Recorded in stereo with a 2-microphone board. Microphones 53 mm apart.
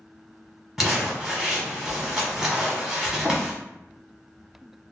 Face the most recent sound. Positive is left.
turn(degrees=-5)  # may be behind; listen again after turning